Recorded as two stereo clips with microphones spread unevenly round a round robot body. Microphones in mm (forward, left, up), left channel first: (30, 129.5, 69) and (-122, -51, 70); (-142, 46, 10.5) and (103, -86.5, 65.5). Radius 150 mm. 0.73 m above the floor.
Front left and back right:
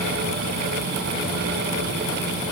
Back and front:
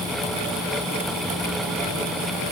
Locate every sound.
Only background noise.